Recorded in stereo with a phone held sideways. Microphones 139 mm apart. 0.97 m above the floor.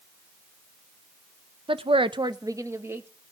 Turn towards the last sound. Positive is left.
turn(degrees=-15)  # may be behind; listen again after turning